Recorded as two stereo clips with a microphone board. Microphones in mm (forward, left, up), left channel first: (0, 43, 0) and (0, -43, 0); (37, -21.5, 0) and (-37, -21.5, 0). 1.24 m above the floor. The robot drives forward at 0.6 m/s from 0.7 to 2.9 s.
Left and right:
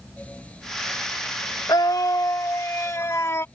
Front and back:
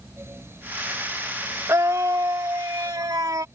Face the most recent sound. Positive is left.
turn(degrees=150)